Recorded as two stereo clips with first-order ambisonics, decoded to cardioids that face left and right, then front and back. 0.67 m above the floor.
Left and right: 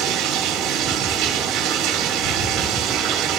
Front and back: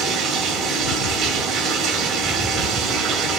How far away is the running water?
About 2 m.